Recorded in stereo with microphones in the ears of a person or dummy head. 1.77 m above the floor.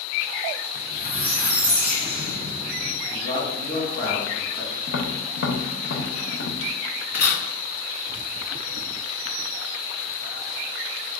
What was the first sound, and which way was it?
A squeak, 35° left (ahead or behind).